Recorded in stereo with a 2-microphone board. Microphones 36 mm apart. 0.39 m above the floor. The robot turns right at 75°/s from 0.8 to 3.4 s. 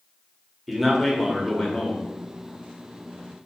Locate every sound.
0.7 s a man speaking: centre (ahead or behind), 0.9 m; by 2.1 s 30° left (ahead or behind), 0.9 m